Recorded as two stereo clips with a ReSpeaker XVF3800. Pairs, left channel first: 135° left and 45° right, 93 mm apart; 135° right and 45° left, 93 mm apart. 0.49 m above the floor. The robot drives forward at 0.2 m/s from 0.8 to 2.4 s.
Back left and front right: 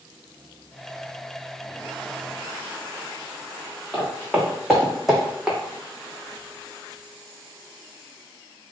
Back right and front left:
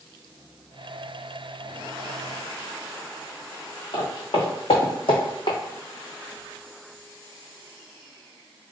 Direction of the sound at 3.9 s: 135° right.